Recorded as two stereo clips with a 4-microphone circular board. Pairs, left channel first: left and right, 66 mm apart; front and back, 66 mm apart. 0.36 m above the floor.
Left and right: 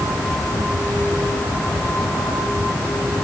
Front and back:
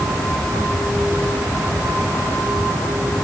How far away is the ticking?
No ticking in this recording.